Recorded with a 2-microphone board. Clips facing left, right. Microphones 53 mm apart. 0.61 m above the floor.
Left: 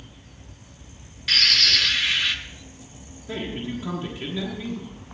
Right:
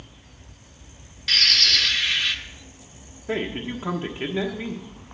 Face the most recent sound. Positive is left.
turn(degrees=-40)  # may be behind; listen again after turning